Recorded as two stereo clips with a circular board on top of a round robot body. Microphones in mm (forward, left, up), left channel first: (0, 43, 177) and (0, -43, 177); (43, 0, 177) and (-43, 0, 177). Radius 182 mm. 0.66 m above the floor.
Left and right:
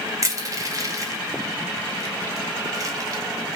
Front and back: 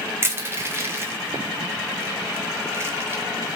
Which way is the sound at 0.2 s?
125° right.